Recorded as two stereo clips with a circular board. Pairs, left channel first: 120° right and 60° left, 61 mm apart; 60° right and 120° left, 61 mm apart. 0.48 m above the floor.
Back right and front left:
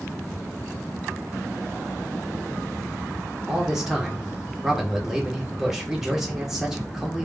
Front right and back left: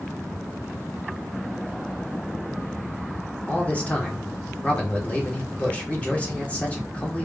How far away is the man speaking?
About 1.5 m.